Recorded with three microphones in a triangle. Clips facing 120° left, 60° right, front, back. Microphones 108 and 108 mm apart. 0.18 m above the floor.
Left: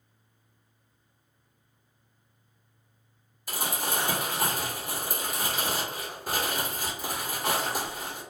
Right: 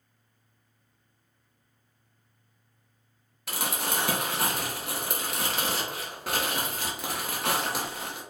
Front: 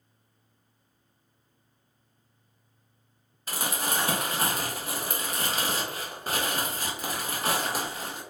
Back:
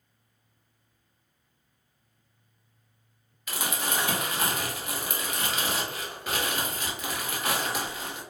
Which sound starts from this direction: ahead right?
Crumpling, at 3.5 s.